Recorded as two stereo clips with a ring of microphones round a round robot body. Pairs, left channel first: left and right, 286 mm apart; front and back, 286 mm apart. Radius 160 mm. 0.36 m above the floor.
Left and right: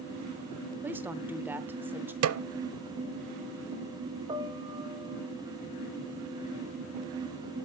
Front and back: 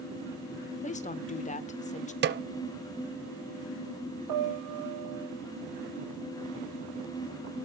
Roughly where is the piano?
Behind.